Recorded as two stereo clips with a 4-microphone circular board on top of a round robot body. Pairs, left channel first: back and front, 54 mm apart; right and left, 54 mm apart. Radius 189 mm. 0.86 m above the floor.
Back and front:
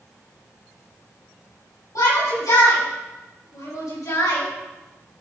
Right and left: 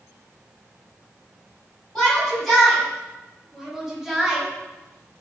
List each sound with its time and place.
1.9 s a shout: 170° right, 6 m; by 4.5 s 175° left, 6 m